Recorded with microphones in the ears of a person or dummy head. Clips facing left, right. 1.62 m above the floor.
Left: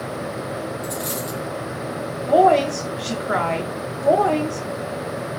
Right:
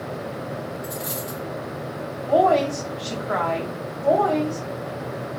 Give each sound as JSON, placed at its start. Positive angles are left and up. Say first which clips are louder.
{"t": 0.8, "sound": "a dropped coin", "louder": "left 3 dB", "side_deg": 25, "distance_m": 0.9}
{"t": 2.3, "sound": "a woman speaking", "louder": "left 3 dB", "side_deg": 35, "distance_m": 1.0}